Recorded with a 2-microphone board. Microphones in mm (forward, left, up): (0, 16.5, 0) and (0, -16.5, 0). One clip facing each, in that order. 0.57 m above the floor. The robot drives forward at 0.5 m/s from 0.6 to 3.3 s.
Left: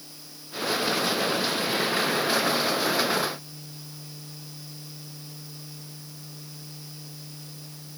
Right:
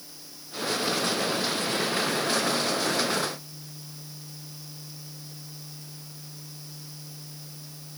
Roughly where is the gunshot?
No gunshot in this recording.